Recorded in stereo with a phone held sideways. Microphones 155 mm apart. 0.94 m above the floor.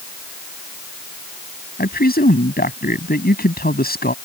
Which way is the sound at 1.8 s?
80° left.